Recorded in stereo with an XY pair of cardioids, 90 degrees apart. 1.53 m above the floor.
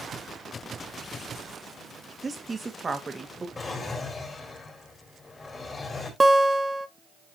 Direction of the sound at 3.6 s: 35° left.